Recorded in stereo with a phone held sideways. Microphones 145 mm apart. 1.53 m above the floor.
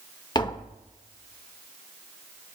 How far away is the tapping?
About 0.9 m.